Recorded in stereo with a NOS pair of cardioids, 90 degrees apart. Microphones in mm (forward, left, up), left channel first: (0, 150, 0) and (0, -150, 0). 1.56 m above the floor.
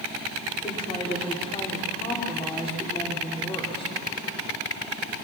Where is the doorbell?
I don't hear a doorbell.